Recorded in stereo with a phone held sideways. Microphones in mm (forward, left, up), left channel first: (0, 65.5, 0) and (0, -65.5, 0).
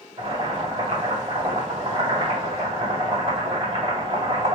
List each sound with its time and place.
0.2 s boiling: 40° right (ahead or behind), 2 m